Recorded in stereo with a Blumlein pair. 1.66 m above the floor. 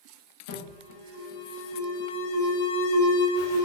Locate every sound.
0.5 s an alarm: 55° left, 1.1 m